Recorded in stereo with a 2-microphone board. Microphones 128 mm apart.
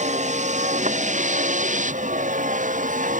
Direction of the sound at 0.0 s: 65° right (ahead or behind).